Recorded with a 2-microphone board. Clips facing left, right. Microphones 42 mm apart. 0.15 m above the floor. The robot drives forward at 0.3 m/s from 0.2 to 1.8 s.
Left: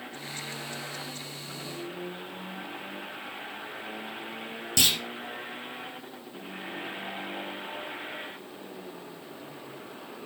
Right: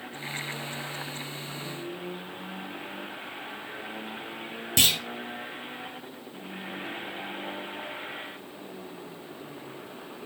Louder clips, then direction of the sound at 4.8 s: Right 2 dB; 20° right (ahead or behind).